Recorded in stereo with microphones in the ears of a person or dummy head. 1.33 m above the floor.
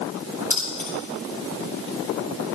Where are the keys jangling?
10° left (ahead or behind), 6 m.